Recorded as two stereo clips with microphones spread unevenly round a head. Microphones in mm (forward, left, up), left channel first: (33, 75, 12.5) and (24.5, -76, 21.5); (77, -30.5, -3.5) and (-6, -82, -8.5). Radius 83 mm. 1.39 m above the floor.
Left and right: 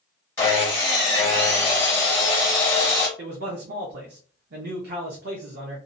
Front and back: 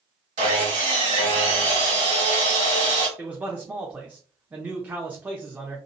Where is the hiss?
I don't hear a hiss.